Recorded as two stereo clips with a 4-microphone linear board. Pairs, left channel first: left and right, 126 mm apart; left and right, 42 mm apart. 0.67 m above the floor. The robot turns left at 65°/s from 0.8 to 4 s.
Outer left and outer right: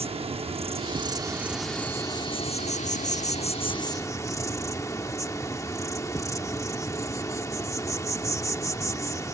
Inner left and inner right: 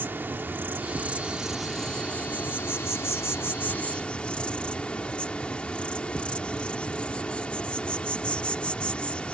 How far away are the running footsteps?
No running footsteps in this recording.